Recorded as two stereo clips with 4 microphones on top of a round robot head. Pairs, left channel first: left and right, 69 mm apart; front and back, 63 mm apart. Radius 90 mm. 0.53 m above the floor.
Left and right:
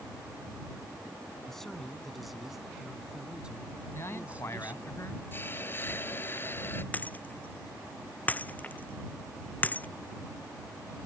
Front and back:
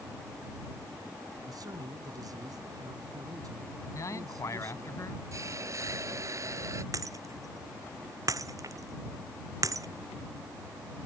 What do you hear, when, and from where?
1.5 s a man speaking: 175° left; by 4.9 s 155° right
3.9 s a man speaking: 35° left
5.3 s a hiss: 145° left
6.9 s breaking glass: 155° left